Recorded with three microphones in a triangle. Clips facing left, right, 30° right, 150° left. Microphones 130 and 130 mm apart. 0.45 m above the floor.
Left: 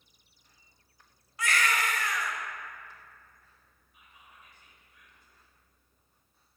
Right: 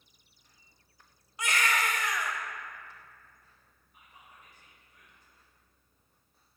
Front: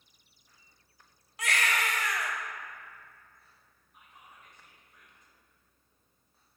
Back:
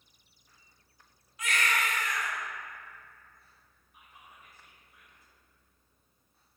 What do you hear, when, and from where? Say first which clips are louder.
1.4 s a baby crying: left 1 dB, even; 20° right, 0.8 m
3.9 s whispering: right 1 dB, even; 130° right, 1.6 m